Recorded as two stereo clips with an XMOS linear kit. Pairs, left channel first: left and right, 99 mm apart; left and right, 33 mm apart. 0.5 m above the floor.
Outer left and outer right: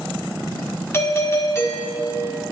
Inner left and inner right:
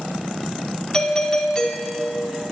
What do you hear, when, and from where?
0.9 s a doorbell: 25° left (ahead or behind), 1.5 m